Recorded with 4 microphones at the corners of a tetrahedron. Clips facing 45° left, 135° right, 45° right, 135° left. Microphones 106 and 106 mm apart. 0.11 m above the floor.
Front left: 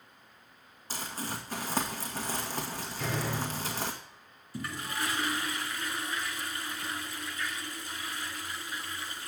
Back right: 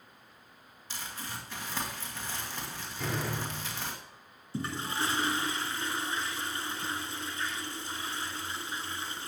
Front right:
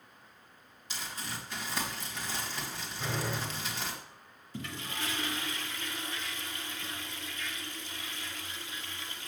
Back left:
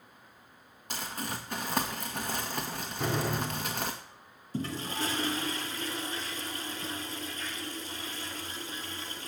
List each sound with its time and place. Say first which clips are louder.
0.9 s crumpling: front left 4 dB, back left 5 dB; 95° left, 1.9 m
3.0 s a door slam: front left 1 dB, back left 5 dB; 140° left, 3 m
4.5 s a toilet flushing: back right 2 dB, back left 6 dB; 170° left, 0.9 m